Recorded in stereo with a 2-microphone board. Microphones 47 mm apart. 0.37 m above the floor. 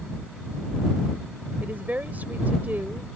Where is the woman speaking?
40° right (ahead or behind).